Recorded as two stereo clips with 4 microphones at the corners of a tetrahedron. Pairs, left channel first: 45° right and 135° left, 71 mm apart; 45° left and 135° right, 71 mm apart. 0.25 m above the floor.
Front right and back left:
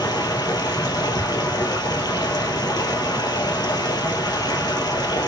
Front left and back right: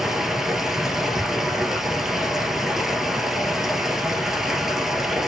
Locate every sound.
0.0 s running water: 50° right, 2.0 m